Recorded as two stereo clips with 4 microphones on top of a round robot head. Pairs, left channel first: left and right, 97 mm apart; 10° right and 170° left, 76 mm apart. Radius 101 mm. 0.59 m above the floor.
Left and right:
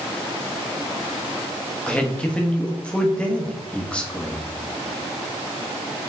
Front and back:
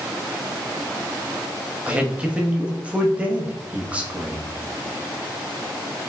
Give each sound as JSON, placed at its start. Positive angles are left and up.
{"t": 1.9, "sound": "a man speaking", "azimuth_deg": 145, "distance_m": 1.1}